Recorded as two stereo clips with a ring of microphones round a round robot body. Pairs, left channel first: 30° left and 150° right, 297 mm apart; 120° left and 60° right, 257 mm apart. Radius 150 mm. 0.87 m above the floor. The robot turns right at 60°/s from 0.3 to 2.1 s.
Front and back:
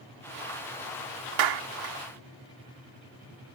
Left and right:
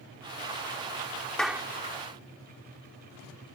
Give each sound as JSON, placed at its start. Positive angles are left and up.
{"t": 1.4, "sound": "a clap", "azimuth_deg": -155}